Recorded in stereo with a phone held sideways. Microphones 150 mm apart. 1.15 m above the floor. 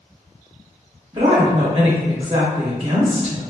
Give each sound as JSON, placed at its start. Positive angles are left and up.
{"t": 1.1, "sound": "a woman speaking", "side_deg": -40, "distance_m": 1.1}